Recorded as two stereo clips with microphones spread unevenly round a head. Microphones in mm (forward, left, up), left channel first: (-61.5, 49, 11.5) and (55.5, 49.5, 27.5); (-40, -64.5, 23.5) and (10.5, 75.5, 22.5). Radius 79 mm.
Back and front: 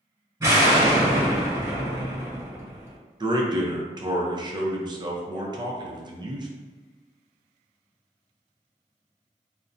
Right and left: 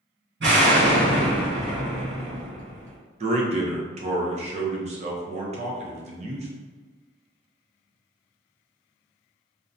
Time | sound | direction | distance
0.4 | an explosion | 55° left | 1.6 m
3.2 | a man speaking | 50° left | 0.6 m